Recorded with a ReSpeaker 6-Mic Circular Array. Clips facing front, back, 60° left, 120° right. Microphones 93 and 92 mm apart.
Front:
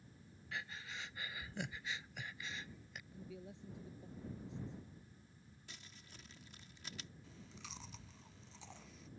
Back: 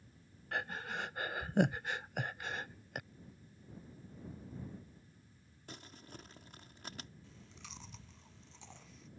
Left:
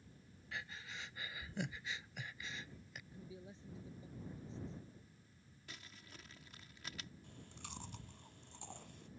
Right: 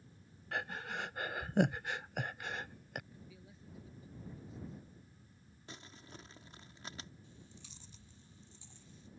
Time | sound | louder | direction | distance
0.5 | breathing | back 8 dB, right 9 dB | 150° right | ?
3.1 | a man speaking | front 7 dB, left 3 dB | straight ahead | ?
5.7 | crumpling | back 10 dB, right 5 dB | 170° right | ?
7.2 | chewing | front 1 dB, left 3 dB | 90° left | ?